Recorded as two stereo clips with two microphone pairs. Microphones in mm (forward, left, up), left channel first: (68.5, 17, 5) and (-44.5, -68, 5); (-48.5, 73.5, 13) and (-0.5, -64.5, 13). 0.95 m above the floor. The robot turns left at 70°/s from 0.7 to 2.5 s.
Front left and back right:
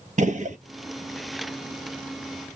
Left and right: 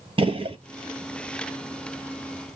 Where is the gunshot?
120° right, 1.0 m.